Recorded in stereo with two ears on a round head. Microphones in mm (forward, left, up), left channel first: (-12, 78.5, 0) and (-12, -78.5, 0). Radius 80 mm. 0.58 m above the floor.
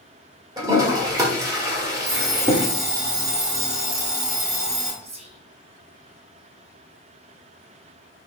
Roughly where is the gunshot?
I don't hear a gunshot.